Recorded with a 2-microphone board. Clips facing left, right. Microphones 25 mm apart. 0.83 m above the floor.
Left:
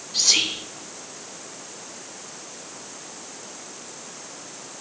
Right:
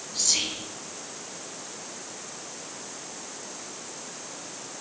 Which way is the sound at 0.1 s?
45° left (ahead or behind).